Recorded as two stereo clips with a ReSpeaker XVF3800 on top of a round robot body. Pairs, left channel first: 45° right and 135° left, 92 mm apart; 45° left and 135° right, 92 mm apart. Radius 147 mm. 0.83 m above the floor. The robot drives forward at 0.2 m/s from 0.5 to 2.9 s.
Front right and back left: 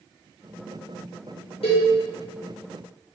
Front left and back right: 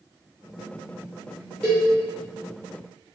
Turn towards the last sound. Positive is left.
turn(degrees=-65)